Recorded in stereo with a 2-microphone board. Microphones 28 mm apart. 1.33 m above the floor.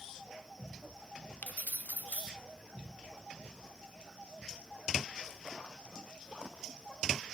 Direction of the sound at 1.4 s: 65° left (ahead or behind).